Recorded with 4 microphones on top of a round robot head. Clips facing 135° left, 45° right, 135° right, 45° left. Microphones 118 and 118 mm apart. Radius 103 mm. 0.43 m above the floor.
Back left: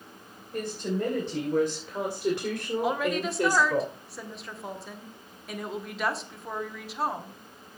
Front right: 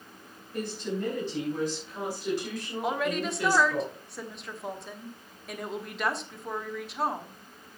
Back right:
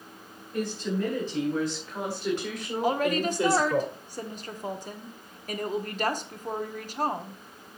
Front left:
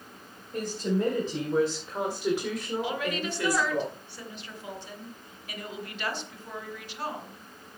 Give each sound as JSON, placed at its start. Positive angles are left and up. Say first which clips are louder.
{"t": 0.5, "sound": "a woman speaking", "louder": "back left 2 dB, front left 1 dB", "azimuth_deg": 95, "distance_m": 4.5}
{"t": 2.8, "sound": "a woman speaking", "louder": "even, back right 6 dB", "azimuth_deg": -135, "distance_m": 1.6}